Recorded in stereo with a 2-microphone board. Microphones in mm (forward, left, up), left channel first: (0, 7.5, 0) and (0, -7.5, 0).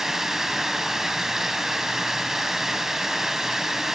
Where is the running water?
30° right (ahead or behind), 0.8 m.